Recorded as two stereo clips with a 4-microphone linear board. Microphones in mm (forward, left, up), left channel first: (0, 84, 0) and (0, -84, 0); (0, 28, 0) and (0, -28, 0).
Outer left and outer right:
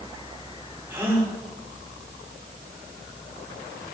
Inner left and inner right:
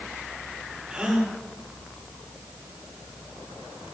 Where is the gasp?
15° right (ahead or behind), 6.5 m.